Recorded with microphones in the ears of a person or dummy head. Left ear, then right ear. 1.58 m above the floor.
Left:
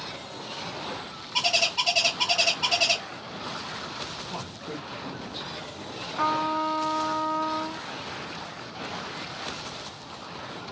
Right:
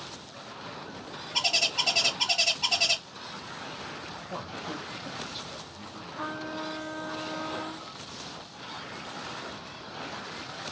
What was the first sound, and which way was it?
A bird, centre (ahead or behind).